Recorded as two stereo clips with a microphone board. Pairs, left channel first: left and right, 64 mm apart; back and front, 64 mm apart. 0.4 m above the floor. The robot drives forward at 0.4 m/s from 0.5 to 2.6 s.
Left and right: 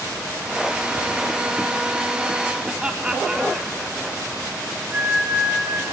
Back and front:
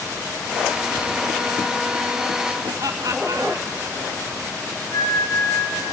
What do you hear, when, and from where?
2.6 s laughter: 20° right, 2.5 m
4.9 s a flute: 160° right, 3.5 m